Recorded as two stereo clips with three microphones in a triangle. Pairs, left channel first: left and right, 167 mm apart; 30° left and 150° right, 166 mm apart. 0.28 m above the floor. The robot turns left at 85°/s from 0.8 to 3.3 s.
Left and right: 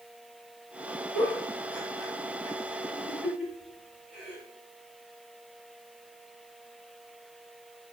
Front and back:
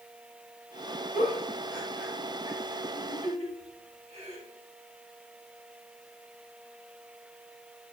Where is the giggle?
10° left, 2 m; by 4.4 s 170° right, 2 m.